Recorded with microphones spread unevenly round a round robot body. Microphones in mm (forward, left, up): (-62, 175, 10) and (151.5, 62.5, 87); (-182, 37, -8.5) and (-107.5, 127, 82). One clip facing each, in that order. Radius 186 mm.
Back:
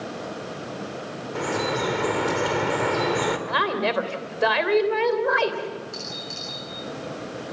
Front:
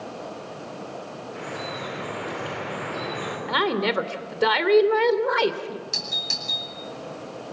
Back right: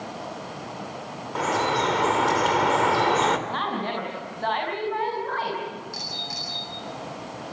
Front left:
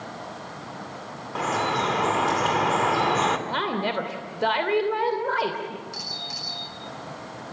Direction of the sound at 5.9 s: 35° right.